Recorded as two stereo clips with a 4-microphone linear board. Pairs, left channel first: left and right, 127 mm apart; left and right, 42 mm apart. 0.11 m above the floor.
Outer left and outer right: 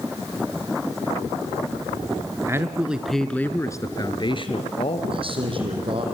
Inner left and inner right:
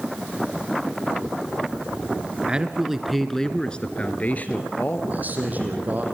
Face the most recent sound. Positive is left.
turn(degrees=-45)  # may be behind; listen again after turning